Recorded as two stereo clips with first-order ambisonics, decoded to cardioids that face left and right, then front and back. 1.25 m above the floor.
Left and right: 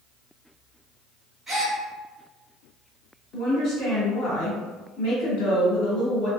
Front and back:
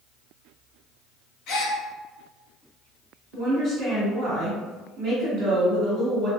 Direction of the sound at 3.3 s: 125° left.